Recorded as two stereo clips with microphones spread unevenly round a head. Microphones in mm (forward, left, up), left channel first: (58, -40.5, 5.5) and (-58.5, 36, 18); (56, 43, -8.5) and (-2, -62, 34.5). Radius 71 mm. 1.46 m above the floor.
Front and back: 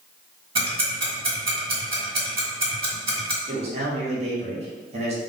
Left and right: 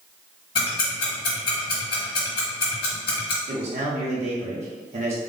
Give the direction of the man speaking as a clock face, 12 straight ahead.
6 o'clock.